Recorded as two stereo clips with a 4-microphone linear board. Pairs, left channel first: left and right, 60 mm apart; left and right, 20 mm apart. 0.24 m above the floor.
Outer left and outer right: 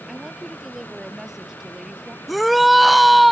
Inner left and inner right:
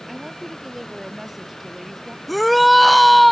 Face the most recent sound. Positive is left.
turn(degrees=0)  # may be behind; listen again after turning